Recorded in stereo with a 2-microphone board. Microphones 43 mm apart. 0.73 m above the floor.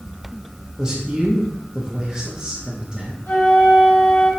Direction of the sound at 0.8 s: 15° right (ahead or behind).